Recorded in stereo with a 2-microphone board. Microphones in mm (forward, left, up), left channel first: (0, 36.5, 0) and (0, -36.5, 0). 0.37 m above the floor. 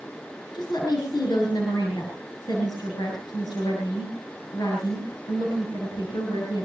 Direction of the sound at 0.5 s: 70° left (ahead or behind).